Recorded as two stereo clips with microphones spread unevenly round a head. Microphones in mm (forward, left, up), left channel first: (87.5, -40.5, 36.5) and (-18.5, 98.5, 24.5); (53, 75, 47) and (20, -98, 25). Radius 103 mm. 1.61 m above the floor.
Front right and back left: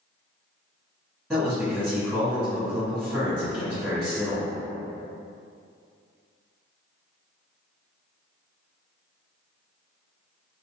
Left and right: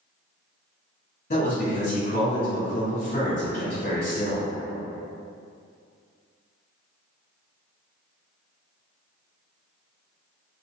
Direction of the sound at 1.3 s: 45° left.